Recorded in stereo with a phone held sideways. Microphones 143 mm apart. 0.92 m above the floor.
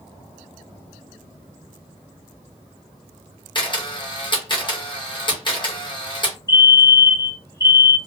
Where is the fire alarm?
20° left (ahead or behind), 1.7 m.